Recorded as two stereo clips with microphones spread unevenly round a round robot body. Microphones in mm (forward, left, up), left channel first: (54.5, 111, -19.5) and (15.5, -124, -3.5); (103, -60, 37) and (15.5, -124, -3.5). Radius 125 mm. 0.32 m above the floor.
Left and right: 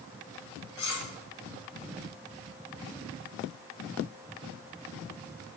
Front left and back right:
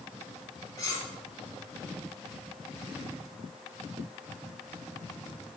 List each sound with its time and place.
0.8 s cutlery clinking: 115° left, 2.5 m